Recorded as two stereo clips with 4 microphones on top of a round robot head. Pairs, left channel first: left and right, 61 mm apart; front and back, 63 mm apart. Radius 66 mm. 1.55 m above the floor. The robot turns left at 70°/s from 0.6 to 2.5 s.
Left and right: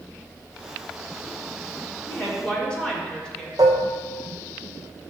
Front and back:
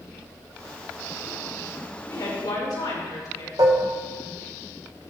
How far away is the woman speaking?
About 4 m.